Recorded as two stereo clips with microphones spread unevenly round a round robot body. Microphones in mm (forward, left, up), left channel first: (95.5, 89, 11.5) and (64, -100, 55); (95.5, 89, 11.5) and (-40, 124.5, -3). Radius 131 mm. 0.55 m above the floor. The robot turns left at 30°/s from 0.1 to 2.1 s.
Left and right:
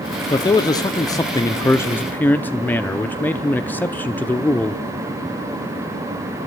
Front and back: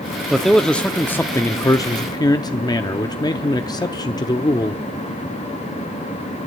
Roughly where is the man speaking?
Left.